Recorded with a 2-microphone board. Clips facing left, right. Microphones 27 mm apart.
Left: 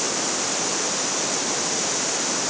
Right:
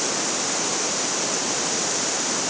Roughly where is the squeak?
No squeak in this recording.